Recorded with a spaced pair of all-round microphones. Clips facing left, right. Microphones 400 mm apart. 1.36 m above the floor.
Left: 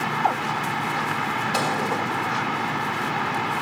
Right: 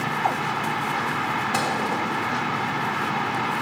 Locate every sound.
1.5 s a microwave: 65° right (ahead or behind), 1.6 m